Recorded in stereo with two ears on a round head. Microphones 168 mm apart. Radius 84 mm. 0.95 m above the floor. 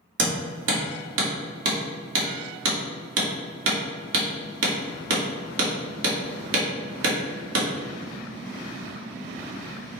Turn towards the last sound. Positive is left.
turn(degrees=-75)  # may be behind; listen again after turning